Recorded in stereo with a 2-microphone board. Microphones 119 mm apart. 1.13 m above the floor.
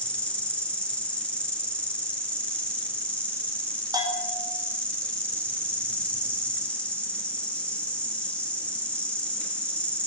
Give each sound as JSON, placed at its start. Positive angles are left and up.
{"t": 0.0, "sound": "an insect", "side_deg": 10, "distance_m": 4.0}
{"t": 3.9, "sound": "a bell", "side_deg": -35, "distance_m": 5.0}